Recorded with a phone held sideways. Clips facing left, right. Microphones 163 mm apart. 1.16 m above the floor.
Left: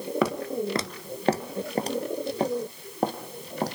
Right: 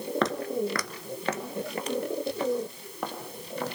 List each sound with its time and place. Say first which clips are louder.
0.2 s footsteps: left 1 dB; 10° left (ahead or behind), 1.1 m; by 3.8 s 40° left (ahead or behind), 3.5 m